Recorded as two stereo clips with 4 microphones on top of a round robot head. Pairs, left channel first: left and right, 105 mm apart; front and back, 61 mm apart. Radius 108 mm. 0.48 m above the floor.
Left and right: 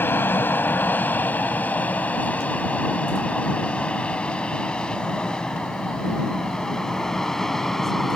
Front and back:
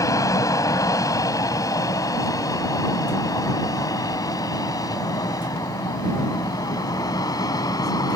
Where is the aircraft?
20° left; by 8.2 s straight ahead.